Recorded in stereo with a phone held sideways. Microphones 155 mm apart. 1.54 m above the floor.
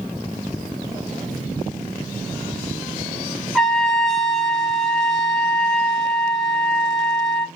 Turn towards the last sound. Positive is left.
turn(degrees=0)  # may be behind; listen again after turning